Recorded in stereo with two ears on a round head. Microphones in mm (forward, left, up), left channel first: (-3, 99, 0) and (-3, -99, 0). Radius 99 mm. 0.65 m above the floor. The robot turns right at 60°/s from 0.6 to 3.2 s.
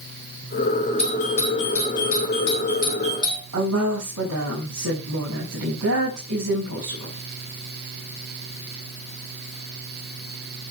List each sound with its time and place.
1.0 s a doorbell: 25° left (ahead or behind), 6 m; by 3.4 s 20° left (ahead or behind), 6 m
3.5 s a woman speaking: 75° right (ahead or behind), 5.5 m